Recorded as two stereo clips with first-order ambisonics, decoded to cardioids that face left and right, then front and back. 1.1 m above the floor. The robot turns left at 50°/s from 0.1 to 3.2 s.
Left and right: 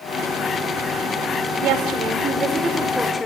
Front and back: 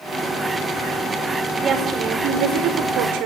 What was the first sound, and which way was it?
A woman speaking, 115° right.